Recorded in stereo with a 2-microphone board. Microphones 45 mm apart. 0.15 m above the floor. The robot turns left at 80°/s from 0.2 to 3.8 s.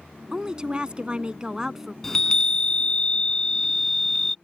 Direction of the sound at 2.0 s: 10° left (ahead or behind).